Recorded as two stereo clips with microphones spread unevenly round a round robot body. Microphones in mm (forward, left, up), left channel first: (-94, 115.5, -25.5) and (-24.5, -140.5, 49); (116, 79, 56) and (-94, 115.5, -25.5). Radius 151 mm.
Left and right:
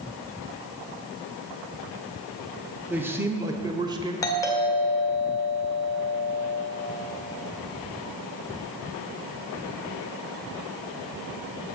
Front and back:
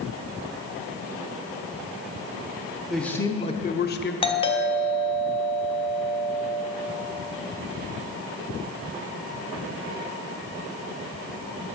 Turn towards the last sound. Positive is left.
turn(degrees=70)